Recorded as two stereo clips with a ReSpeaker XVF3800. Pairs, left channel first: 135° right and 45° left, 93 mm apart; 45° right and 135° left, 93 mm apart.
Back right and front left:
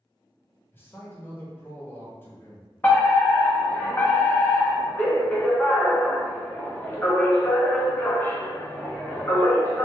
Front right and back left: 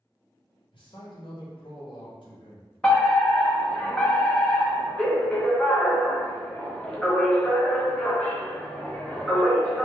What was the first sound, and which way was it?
A man speaking, 70° right.